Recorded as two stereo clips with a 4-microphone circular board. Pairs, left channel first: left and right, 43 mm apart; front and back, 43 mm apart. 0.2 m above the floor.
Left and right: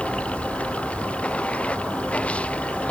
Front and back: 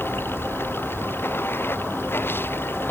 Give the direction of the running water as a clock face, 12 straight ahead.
11 o'clock.